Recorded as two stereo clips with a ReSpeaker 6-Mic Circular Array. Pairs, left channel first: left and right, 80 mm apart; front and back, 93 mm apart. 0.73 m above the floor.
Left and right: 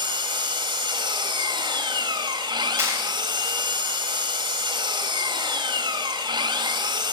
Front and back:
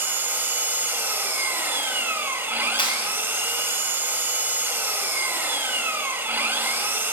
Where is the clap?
30° right, 2.5 m.